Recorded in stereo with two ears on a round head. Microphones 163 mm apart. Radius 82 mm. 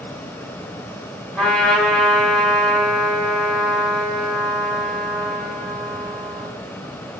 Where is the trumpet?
5° left (ahead or behind), 1.1 m.